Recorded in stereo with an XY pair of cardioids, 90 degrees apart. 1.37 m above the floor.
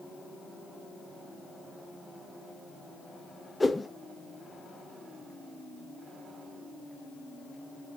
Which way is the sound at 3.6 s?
20° left.